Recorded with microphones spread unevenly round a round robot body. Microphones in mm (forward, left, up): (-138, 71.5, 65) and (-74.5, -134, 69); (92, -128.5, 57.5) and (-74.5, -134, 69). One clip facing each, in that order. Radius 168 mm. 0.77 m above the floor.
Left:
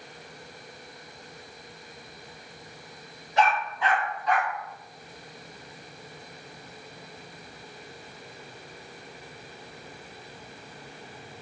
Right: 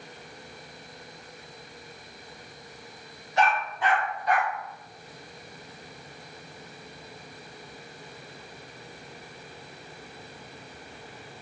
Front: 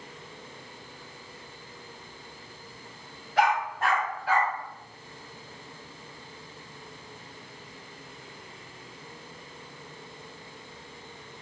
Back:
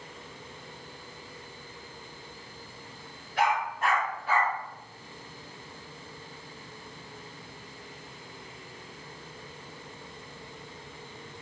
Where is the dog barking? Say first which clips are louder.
Left 1 dB, front 2 dB; 70° left, 1.6 m; by 4.5 s 75° left, 2.5 m.